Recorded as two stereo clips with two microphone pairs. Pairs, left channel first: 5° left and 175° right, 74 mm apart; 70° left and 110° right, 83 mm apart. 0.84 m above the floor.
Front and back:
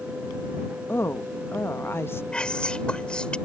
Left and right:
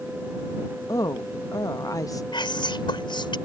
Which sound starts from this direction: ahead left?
A woman speaking, at 0.9 s.